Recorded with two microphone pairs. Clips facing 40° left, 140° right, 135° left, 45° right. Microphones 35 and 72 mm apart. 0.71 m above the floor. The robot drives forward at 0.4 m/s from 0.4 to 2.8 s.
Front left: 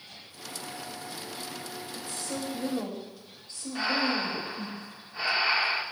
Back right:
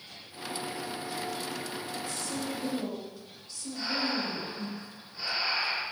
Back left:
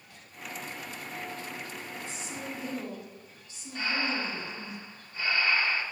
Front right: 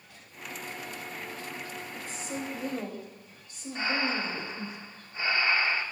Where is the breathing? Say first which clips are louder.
Front left 4 dB, front right 1 dB; 15° left, 1.4 m.